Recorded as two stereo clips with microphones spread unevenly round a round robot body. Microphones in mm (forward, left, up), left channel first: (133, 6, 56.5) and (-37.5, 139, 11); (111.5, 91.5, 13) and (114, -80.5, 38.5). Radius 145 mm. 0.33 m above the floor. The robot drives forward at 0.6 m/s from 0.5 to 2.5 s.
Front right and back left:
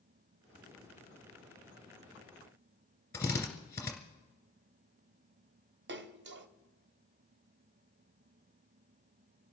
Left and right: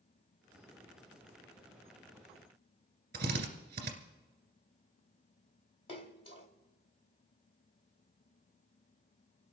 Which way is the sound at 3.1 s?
125° right.